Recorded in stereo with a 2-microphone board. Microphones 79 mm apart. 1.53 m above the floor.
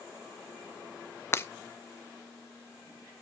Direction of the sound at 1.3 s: 30° left (ahead or behind).